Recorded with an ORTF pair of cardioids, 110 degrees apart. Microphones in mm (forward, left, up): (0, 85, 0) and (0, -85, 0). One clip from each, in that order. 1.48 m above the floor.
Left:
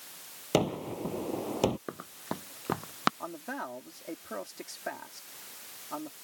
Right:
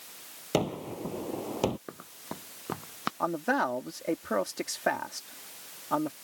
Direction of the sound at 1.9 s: 25° left.